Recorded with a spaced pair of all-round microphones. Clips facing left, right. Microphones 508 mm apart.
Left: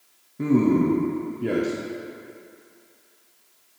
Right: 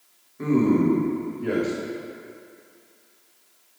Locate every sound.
0.4 s a man speaking: 50° left (ahead or behind), 0.8 m